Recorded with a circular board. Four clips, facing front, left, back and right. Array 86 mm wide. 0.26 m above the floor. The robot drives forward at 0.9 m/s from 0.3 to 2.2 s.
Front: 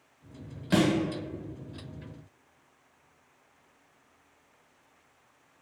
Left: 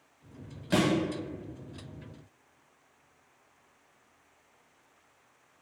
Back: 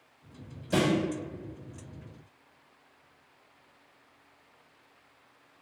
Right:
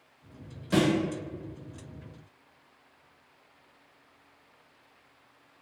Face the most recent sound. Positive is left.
turn(degrees=65)